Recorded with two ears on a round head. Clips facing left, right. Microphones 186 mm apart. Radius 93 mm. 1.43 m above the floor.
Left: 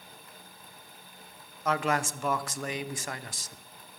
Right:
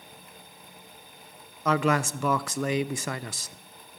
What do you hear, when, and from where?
1.6 s a man speaking: 65° right (ahead or behind), 0.6 m